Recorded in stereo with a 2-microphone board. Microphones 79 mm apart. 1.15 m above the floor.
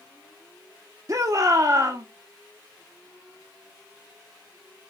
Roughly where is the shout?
Right.